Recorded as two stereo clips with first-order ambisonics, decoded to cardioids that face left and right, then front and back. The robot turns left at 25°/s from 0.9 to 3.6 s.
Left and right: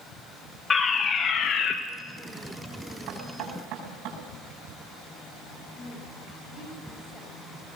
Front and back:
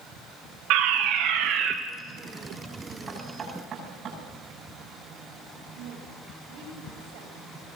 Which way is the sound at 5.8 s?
165° left.